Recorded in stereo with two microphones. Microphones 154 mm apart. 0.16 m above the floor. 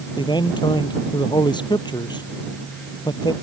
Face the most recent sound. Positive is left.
turn(degrees=30)  # may be behind; listen again after turning